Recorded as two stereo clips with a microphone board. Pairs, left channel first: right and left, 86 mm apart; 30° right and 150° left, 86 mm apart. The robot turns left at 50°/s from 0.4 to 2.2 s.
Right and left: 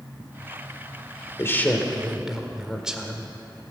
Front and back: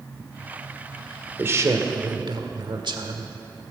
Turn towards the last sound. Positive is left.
turn(degrees=175)